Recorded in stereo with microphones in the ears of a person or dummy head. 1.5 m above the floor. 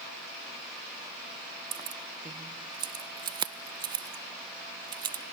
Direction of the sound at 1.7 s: 20° right (ahead or behind).